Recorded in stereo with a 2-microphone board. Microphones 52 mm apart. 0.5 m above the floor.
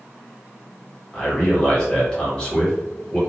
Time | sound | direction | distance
1.1 | a man speaking | 15° left (ahead or behind) | 1.0 m